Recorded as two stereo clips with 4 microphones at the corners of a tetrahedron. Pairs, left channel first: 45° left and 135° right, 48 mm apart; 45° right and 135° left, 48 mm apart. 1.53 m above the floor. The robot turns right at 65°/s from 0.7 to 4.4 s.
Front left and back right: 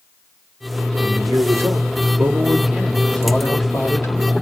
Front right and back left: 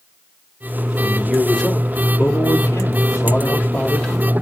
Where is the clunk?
I don't hear a clunk.